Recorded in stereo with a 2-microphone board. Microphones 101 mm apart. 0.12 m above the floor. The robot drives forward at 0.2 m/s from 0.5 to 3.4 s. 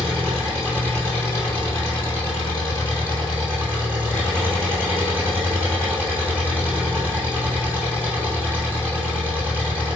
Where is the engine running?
25° left (ahead or behind), 1.6 m; by 10.0 s 20° left (ahead or behind), 2 m.